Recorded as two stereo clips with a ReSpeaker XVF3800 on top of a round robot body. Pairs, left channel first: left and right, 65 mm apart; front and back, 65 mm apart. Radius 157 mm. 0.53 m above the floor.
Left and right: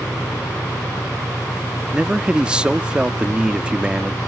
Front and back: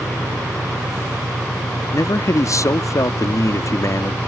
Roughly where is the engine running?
Behind.